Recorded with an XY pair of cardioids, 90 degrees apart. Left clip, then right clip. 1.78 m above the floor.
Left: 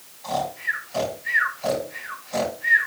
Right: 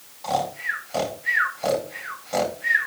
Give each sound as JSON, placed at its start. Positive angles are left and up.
{"t": 0.2, "sound": "snoring", "azimuth_deg": -65, "distance_m": 4.0}